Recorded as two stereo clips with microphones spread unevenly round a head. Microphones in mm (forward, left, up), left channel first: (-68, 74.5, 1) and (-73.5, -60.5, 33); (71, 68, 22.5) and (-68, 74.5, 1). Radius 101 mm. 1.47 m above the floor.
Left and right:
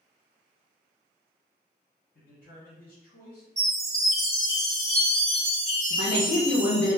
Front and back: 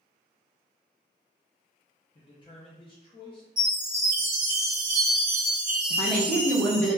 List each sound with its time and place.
2.1 s a man speaking: 40° left, 0.7 m
3.6 s a chime: 155° right, 1.2 m
5.9 s a woman speaking: 75° left, 0.9 m